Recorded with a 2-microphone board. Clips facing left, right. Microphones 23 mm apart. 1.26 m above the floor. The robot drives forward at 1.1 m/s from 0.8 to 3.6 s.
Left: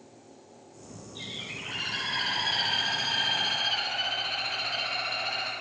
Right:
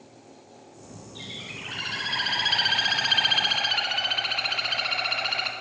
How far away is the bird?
About 2.5 m.